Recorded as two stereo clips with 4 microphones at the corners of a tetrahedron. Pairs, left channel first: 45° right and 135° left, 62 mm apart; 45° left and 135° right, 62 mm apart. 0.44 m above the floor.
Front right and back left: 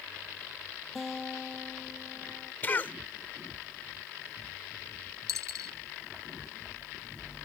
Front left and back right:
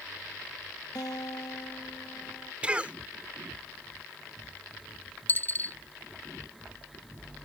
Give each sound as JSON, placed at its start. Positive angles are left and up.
{"t": 0.9, "sound": "a guitar", "azimuth_deg": 45}
{"t": 2.6, "sound": "a cough", "azimuth_deg": -80}
{"t": 5.3, "sound": "a dropped coin", "azimuth_deg": 105}